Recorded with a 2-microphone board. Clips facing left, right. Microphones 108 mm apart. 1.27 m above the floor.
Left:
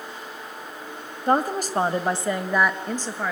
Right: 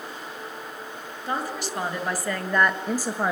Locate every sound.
1.3 s a woman speaking: 50° left (ahead or behind), 2 m; by 3.3 s 20° right (ahead or behind), 1.8 m